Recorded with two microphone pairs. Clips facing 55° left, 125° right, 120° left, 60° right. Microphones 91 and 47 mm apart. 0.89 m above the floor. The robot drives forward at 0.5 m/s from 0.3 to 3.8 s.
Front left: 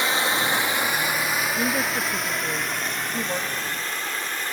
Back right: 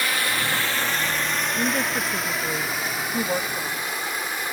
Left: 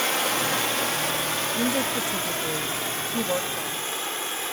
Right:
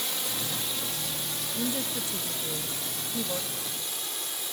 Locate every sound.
0.0 s running water: 120° left, 1.2 m; by 4.5 s 155° left, 2.5 m
1.6 s a woman speaking: 135° left, 0.9 m; by 4.4 s 165° left, 1.7 m